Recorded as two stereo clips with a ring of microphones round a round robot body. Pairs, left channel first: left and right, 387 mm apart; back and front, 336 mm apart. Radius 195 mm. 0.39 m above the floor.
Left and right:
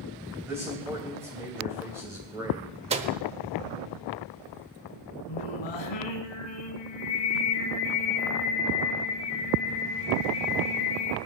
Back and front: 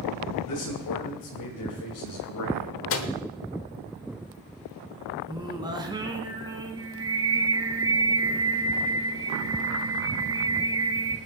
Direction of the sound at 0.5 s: 170° right.